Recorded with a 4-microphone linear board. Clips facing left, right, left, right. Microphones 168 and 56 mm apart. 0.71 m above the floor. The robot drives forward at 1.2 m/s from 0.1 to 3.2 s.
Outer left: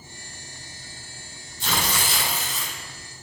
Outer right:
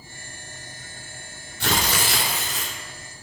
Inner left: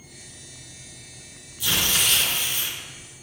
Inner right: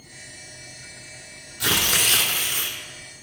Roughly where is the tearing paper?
Right.